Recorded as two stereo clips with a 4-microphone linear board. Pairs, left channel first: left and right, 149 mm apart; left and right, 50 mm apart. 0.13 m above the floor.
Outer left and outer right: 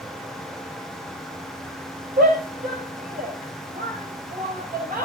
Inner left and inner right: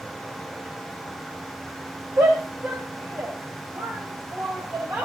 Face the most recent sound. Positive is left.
turn(degrees=-65)  # may be behind; listen again after turning